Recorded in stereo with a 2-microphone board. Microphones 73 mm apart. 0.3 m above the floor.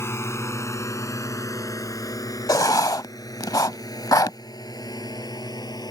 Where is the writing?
60° left (ahead or behind).